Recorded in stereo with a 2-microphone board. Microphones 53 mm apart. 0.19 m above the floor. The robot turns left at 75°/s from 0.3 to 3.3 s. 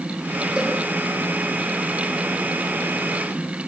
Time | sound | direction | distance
0.6 | a cowbell | 15° right (ahead or behind) | 8 m